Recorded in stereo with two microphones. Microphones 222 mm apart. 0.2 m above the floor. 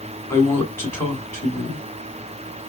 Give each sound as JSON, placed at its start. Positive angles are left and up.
{"t": 0.3, "sound": "a woman speaking", "side_deg": 10, "distance_m": 2.0}